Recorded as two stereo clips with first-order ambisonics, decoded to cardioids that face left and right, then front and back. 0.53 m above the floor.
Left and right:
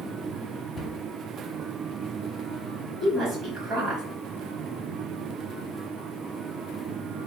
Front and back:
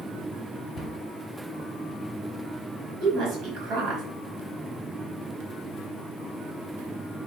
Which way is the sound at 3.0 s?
150° right.